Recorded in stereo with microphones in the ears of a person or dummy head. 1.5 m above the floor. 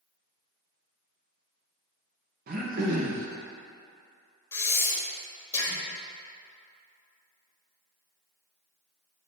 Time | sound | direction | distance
2.5 | throat clearing | 50° right (ahead or behind) | 1.0 m
4.5 | breathing | 15° left (ahead or behind) | 1.3 m